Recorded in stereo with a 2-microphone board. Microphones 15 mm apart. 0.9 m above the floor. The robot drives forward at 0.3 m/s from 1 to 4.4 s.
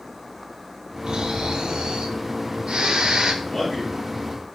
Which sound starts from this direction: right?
Snoring, at 1.1 s.